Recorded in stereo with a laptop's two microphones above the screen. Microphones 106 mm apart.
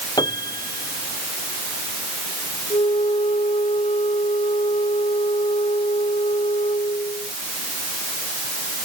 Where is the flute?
75° left (ahead or behind).